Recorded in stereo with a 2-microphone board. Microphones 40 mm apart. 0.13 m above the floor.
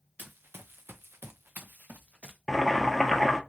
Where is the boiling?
5° left (ahead or behind), 0.6 m.